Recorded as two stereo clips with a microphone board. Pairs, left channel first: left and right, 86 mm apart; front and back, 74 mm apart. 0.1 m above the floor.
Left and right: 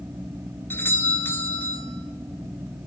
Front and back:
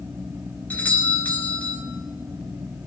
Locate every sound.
0.7 s a doorbell: 45° left, 1.9 m